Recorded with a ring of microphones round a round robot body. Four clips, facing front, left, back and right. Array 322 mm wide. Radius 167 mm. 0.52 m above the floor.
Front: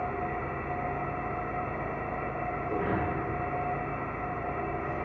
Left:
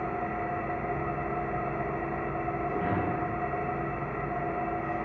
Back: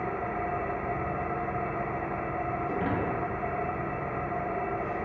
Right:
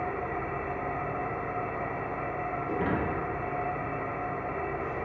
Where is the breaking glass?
135° right, 0.8 m.